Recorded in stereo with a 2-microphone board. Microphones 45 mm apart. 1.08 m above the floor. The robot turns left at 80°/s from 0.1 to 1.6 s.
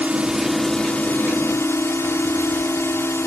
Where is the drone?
145° right; by 3.3 s 95° left.